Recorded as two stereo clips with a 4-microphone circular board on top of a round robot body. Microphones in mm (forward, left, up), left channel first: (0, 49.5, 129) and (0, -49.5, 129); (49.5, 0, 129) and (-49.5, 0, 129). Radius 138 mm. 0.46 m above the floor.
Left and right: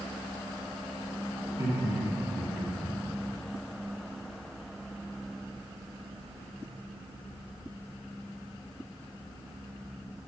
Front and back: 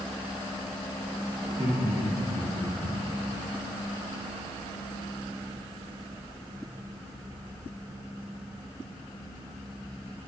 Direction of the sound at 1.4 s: 135° right.